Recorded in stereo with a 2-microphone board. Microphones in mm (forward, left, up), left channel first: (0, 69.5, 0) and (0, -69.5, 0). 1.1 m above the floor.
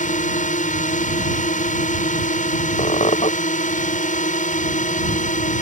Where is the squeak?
55° left (ahead or behind).